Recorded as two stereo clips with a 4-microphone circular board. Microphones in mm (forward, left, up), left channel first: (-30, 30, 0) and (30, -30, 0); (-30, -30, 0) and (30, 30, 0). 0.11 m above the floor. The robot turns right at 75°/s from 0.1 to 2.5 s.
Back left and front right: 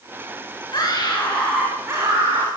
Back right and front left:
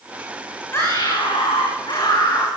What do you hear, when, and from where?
0.7 s a scream: 165° left, 9.5 m; by 2.5 s 65° right, 9.5 m